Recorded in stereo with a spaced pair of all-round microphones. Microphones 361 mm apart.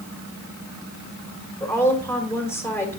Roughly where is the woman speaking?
Centre.